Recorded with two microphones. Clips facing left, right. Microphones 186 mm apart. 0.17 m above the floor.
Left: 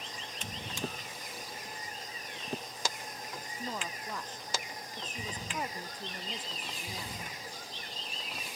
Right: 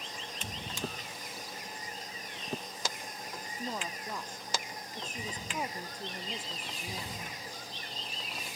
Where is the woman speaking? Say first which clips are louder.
Right 1 dB; 10° right (ahead or behind).